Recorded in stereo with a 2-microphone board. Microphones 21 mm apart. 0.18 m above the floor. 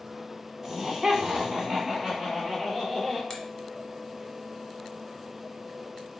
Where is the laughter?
20° right (ahead or behind), 1.2 m; by 3.2 s 25° right (ahead or behind), 2.5 m.